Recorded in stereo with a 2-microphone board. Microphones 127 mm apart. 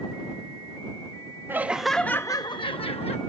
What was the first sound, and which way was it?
Laughter, 15° right (ahead or behind).